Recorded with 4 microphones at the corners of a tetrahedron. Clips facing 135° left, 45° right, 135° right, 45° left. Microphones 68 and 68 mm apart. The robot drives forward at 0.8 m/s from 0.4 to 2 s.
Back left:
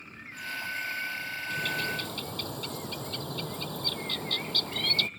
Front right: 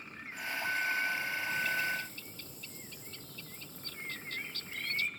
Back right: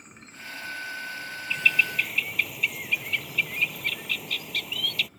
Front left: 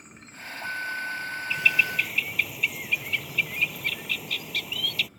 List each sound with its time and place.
1.5 s a bird: 130° left; by 5.1 s 135° left